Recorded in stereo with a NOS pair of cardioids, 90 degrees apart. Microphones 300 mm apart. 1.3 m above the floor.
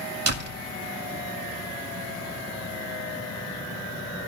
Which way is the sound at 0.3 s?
60° right.